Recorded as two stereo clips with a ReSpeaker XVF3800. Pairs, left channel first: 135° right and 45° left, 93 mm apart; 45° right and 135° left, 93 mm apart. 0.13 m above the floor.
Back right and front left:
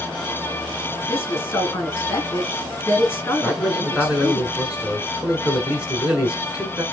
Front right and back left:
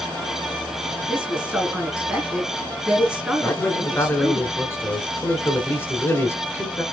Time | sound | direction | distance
1.1 | a woman speaking | 165° right | 1.5 m
3.4 | a man speaking | 15° right | 1.4 m